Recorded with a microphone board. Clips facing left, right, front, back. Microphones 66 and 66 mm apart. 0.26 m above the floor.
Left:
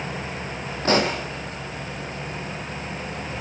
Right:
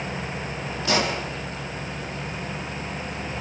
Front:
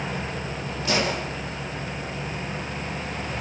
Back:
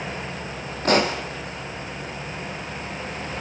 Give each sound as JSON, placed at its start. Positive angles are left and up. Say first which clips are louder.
{"t": 0.8, "sound": "a pop", "louder": "left 3 dB, back 5 dB", "azimuth_deg": 140, "distance_m": 5.0}